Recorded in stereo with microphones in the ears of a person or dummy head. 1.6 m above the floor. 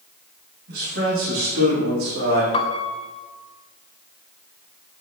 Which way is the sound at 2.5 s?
30° left (ahead or behind).